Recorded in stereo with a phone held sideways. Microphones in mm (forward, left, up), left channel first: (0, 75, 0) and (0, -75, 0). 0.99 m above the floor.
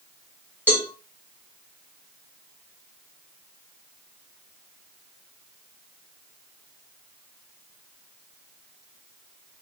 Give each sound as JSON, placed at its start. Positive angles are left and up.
{"t": 0.7, "sound": "a cowbell", "side_deg": 10, "distance_m": 1.7}